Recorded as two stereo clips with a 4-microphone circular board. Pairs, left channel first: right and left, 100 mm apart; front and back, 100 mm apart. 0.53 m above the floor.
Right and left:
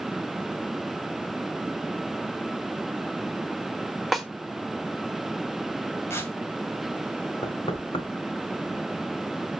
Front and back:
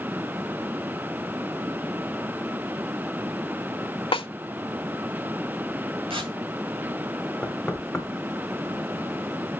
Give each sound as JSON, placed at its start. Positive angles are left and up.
{"t": 4.1, "sound": "a snare drum", "azimuth_deg": 0, "distance_m": 1.1}
{"t": 6.1, "sound": "tearing paper", "azimuth_deg": -155, "distance_m": 2.0}
{"t": 7.4, "sound": "knocking", "azimuth_deg": -85, "distance_m": 2.0}